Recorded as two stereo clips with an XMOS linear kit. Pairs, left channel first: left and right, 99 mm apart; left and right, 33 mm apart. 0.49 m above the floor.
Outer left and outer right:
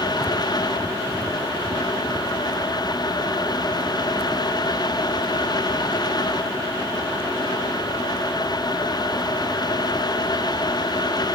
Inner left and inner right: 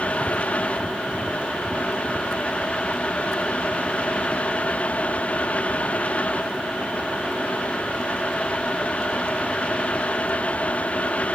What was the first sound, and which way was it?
Only background noise.